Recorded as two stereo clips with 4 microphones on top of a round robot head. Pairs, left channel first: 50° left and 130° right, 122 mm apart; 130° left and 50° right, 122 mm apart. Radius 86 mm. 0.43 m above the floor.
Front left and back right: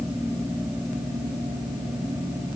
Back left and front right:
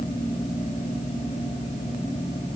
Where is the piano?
I don't hear a piano.